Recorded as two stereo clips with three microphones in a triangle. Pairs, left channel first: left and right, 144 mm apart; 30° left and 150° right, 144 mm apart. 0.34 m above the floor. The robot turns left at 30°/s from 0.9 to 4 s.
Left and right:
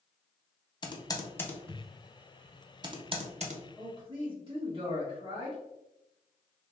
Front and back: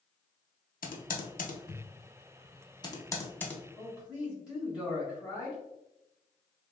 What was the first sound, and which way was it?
Typing on a keyboard, 30° left.